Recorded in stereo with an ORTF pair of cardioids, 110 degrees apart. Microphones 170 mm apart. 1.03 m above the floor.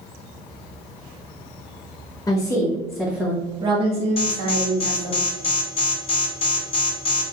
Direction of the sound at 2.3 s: 20° left.